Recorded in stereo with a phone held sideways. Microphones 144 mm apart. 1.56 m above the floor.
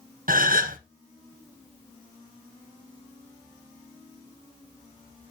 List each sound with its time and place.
0.3 s a gasp: 80° right, 1.0 m